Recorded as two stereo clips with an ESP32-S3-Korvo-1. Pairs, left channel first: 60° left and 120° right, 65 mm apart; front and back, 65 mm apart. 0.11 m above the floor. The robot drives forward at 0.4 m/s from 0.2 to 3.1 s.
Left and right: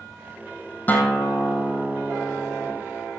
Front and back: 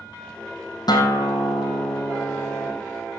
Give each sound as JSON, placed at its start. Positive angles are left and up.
{"t": 0.9, "sound": "a guitar", "azimuth_deg": -5, "distance_m": 3.0}